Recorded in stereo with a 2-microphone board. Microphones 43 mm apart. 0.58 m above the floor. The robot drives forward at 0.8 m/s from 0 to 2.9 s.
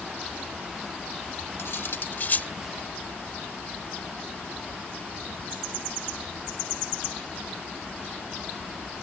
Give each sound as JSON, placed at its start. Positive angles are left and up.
{"t": 1.6, "sound": "cutlery clinking", "side_deg": 70}